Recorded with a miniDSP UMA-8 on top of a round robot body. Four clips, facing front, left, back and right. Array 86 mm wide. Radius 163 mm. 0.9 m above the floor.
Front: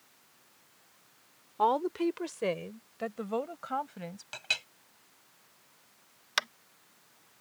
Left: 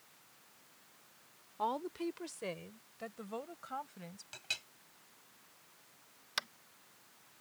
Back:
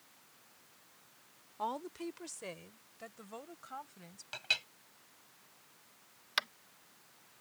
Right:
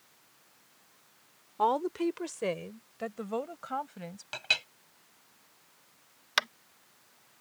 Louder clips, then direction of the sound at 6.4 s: Right 11 dB, front 4 dB; 70° right.